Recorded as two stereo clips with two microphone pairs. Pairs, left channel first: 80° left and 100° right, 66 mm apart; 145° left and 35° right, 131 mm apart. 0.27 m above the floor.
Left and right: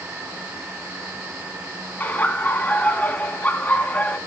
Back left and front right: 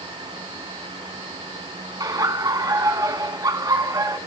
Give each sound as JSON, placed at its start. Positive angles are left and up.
{"t": 2.0, "sound": "laughter", "azimuth_deg": 20, "distance_m": 3.0}